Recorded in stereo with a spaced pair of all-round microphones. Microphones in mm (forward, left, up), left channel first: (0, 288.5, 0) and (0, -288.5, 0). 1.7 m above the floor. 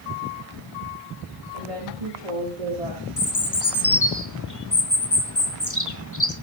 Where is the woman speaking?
85° right, 5 m.